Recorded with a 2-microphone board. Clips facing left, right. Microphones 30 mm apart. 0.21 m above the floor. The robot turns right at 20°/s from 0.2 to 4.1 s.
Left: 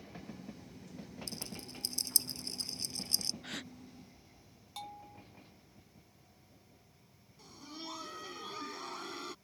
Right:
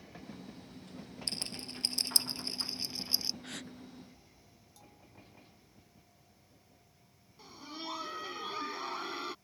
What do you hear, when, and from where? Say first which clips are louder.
1.3 s a rattle: right 8 dB; 55° right (ahead or behind); by 3.3 s 15° right (ahead or behind)
3.4 s a gasp: left 1 dB; 10° left (ahead or behind); by 3.7 s 15° left (ahead or behind)
4.8 s a bell: left 12 dB; 75° left (ahead or behind)
7.4 s laughter: right 3 dB; 20° right (ahead or behind)